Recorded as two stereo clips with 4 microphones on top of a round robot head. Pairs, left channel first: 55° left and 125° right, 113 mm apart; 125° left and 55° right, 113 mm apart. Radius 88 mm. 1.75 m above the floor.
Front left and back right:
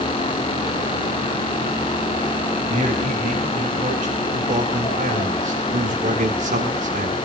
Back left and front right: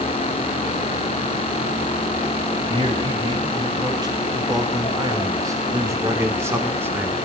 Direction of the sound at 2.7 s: 110° right.